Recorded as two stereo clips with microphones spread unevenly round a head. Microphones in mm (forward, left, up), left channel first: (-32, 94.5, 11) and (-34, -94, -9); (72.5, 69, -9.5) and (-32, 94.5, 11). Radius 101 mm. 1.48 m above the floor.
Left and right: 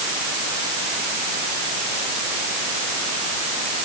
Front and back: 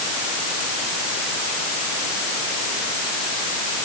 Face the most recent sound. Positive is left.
No sound to turn to.